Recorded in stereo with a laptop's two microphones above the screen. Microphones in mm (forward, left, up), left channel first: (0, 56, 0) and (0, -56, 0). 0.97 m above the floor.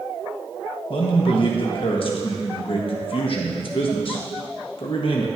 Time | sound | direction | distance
0.9 | a man speaking | 55° left (ahead or behind) | 1.3 m